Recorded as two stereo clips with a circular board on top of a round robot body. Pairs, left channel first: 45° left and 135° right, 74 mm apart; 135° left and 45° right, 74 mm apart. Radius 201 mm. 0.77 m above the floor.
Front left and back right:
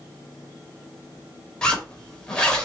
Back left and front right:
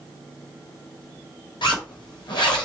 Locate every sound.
1.6 s a zipper: 125° left, 0.9 m